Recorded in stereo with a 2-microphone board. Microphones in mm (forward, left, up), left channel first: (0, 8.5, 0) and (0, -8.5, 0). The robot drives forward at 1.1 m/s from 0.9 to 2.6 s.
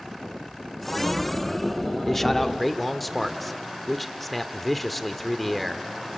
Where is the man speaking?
15° left (ahead or behind), 0.9 m; by 5.9 s 10° left (ahead or behind), 1.2 m.